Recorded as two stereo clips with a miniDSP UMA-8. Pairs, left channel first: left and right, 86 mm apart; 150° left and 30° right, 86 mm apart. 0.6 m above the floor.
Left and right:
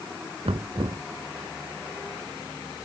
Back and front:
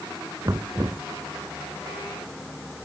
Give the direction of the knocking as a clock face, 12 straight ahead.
3 o'clock.